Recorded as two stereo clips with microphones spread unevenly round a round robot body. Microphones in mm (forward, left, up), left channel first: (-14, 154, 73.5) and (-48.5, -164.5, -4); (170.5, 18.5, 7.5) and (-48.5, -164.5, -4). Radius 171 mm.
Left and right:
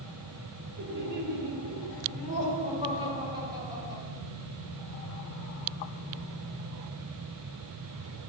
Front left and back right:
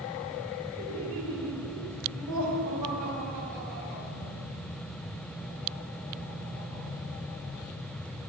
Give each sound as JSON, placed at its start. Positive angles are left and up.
{"t": 0.8, "sound": "laughter", "azimuth_deg": -115, "distance_m": 1.4}